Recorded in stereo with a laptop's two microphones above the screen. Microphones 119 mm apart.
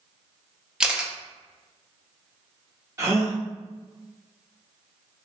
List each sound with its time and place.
0.8 s a camera shutter: 5° right (ahead or behind), 0.5 m
3.0 s a gasp: 25° right (ahead or behind), 0.9 m